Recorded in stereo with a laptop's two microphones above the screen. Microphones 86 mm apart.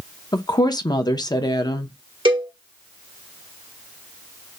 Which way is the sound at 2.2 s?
80° right.